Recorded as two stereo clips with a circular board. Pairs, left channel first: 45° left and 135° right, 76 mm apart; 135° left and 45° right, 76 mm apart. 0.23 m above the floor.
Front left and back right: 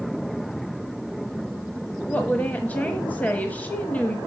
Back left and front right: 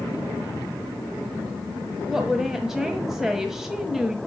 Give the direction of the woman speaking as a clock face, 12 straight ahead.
11 o'clock.